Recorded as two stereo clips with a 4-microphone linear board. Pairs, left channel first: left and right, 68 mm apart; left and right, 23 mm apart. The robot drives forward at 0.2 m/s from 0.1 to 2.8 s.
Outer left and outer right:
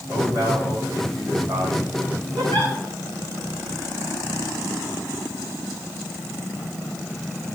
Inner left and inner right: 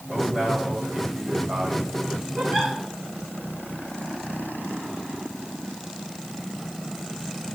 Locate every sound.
0.1 s a man speaking: 40° right (ahead or behind), 5.5 m; by 1.9 s 35° right (ahead or behind), 6 m
2.4 s a giggle: 80° right, 4.5 m